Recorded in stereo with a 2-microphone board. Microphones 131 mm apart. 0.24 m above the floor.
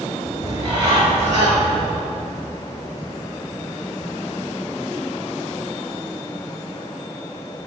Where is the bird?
35° right (ahead or behind), 2 m.